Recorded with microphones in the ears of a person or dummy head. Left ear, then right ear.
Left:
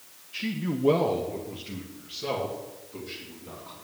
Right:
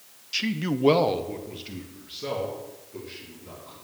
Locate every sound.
0.3 s a man speaking: 75° right (ahead or behind), 1.0 m; by 3.7 s centre (ahead or behind), 5 m